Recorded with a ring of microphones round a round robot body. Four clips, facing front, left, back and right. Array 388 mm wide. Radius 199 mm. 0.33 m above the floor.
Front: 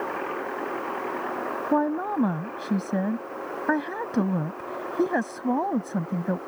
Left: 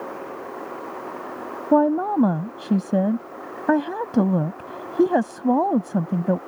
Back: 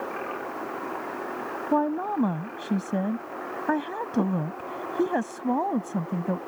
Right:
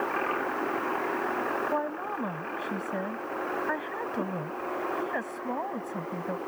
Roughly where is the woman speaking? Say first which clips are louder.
Left 13 dB, even; left.